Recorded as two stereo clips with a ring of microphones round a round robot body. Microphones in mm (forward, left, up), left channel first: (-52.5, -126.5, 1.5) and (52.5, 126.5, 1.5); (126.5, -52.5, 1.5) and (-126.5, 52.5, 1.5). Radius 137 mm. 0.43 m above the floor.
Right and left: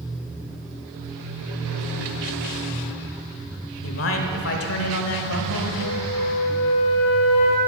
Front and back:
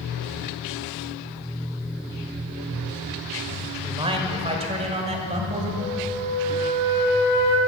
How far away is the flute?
About 2 m.